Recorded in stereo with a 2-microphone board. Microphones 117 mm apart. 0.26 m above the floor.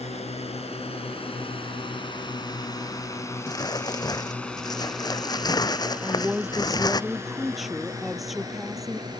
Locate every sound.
0.0 s a drone: 60° left (ahead or behind); by 9.2 s 35° right (ahead or behind)
3.5 s crumpling: 30° left (ahead or behind)
6.0 s a woman speaking: centre (ahead or behind)